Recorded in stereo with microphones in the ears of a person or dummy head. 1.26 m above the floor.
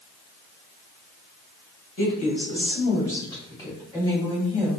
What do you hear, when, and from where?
2.0 s a woman speaking: 40° left (ahead or behind), 1.8 m; by 4.8 s 20° left (ahead or behind), 3 m